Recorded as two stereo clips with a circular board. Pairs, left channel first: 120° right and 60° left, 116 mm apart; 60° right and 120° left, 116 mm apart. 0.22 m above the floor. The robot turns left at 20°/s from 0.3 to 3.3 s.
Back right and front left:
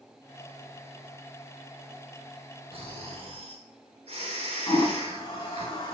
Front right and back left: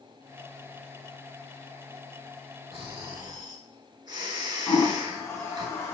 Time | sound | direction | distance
2.7 | snoring | 85° left | 0.8 m
4.7 | a toilet flushing | 115° right | 0.8 m